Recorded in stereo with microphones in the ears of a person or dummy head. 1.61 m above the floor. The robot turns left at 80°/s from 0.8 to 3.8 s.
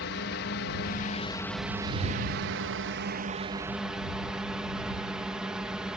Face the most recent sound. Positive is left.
turn(degrees=-5)  # may be behind; listen again after turning